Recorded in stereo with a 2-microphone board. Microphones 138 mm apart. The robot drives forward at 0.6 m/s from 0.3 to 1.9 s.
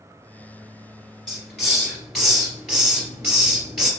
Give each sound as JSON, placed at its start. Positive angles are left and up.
{"t": 1.3, "sound": "a hiss", "side_deg": 0, "distance_m": 1.9}